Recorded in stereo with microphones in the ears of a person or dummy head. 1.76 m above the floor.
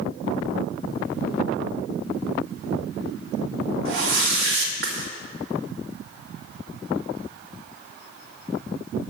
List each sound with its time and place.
3.9 s a whoosh: 65° right (ahead or behind), 2 m